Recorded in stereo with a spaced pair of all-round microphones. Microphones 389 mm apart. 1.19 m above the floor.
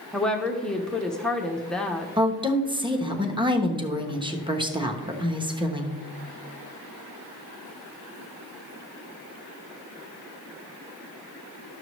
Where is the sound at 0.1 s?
Centre (ahead or behind), 0.6 m.